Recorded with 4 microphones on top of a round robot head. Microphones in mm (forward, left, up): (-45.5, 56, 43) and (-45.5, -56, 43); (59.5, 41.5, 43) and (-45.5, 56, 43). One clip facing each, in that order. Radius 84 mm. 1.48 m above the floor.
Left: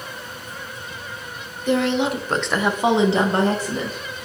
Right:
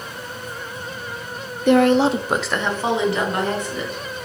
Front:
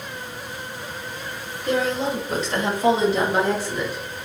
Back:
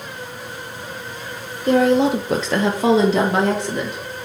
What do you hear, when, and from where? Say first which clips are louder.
1.7 s a woman speaking: right 6 dB, back 8 dB; 125° right, 0.7 m; by 4.0 s 145° left, 1.7 m